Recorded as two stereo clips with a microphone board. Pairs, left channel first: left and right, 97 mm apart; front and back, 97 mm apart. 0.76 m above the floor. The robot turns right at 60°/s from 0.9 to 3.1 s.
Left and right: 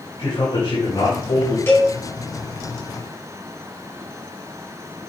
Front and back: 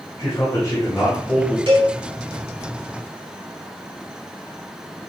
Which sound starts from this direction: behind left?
A cowbell, at 1.7 s.